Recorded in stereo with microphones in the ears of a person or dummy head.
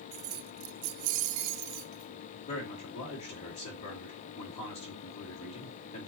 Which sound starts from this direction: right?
Keys jangling, at 0.1 s.